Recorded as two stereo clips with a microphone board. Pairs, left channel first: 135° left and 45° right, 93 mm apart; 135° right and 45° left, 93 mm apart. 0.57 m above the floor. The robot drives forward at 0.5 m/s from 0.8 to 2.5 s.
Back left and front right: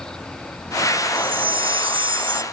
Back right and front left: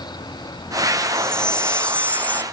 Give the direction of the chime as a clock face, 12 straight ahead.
2 o'clock.